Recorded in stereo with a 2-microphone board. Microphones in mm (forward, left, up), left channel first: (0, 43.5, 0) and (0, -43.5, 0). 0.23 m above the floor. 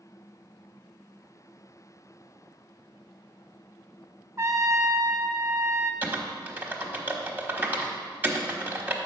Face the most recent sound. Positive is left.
turn(degrees=-20)  # may be behind; listen again after turning